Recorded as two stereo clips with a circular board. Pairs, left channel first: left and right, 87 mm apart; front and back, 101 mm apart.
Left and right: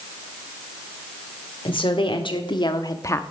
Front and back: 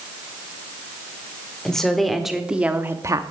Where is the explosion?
No explosion in this recording.